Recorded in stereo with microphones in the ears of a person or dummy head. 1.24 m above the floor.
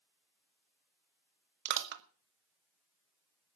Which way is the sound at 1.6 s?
55° right (ahead or behind).